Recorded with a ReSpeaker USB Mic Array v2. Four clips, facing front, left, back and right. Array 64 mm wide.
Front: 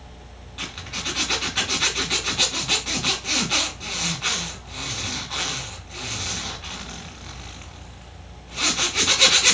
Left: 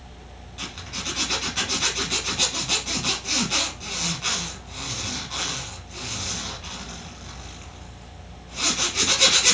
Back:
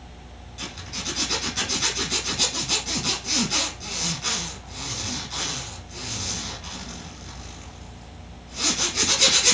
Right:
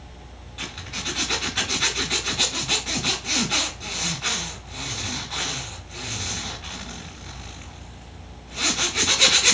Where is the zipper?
10° right, 1.2 m.